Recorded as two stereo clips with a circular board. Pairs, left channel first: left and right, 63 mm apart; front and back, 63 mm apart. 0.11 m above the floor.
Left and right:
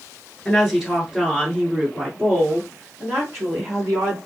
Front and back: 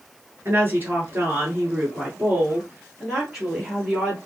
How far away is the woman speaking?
About 1.6 m.